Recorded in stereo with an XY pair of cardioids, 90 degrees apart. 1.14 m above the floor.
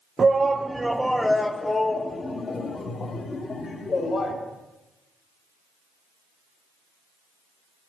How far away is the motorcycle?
No motorcycle in this recording.